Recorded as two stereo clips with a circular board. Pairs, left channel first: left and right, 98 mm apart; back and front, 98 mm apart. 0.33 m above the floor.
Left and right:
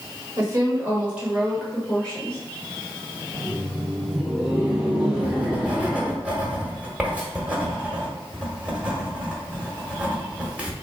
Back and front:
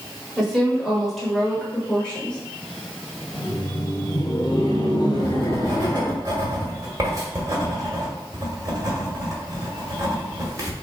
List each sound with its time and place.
0.4 s a woman speaking: 80° right, 1.6 m; by 2.4 s 120° left, 1.5 m
3.3 s laughter: 170° right, 1.6 m
5.1 s writing: 20° right, 1.4 m